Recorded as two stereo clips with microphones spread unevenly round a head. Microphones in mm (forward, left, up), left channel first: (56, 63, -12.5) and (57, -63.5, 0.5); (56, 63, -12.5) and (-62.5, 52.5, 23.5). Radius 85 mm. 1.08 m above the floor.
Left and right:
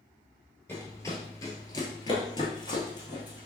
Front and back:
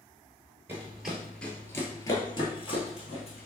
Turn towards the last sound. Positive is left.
turn(degrees=40)